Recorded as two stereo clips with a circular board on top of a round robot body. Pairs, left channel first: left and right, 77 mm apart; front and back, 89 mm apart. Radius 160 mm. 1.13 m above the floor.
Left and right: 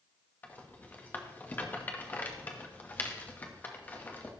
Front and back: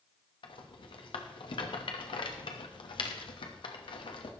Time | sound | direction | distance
0.4 | a rattle | 25° left | 1.1 m